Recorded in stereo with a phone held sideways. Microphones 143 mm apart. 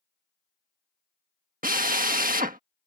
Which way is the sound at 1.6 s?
80° right.